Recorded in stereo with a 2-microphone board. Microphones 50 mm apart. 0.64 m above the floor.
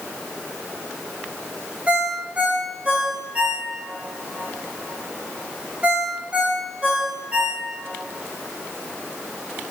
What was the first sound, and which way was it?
A ringtone, 25° right (ahead or behind).